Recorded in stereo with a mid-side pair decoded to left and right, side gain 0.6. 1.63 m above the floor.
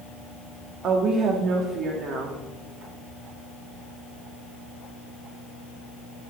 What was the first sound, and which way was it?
A woman speaking, 60° right.